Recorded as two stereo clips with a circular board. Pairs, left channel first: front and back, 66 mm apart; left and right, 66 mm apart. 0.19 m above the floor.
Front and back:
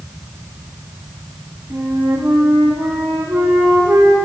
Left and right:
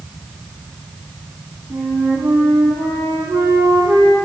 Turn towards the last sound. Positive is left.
turn(degrees=-135)